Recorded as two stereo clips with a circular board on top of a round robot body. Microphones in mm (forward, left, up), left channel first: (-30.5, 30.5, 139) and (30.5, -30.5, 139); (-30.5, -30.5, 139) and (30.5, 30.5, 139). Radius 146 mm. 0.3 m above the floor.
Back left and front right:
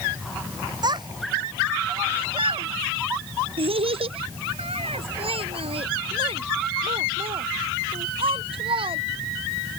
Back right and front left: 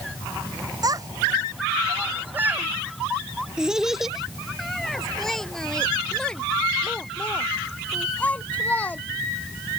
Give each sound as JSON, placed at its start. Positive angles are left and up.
{"t": 0.8, "sound": "a child speaking", "azimuth_deg": -5}